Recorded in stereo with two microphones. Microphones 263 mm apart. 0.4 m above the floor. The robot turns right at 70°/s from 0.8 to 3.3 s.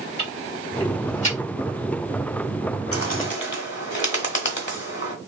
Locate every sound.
0.2 s ticking: 45° left (ahead or behind), 1.6 m; by 1.4 s 20° left (ahead or behind), 1.6 m
2.9 s a bird: 60° left (ahead or behind), 1.0 m; by 5.2 s 45° left (ahead or behind), 1.0 m